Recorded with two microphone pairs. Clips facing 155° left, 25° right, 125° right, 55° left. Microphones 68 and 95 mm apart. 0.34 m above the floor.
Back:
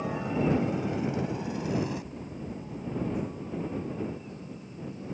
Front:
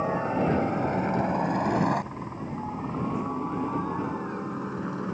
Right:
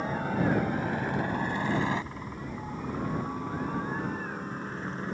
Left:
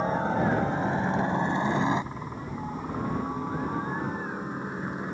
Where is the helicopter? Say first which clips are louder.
Front 3 dB, left 3 dB; 10° left; by 5.1 s 20° right.